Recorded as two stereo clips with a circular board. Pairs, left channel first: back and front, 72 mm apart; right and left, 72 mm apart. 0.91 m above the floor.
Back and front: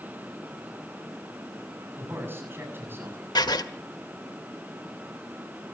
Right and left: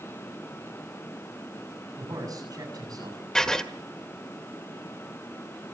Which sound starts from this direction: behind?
Writing, at 3.4 s.